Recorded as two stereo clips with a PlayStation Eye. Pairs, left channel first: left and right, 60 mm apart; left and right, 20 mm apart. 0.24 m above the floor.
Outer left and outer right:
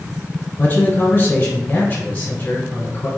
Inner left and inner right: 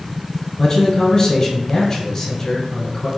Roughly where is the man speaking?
Left.